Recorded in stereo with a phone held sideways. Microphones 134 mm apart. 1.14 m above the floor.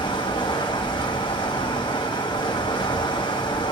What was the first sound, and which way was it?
Running water, 35° left (ahead or behind).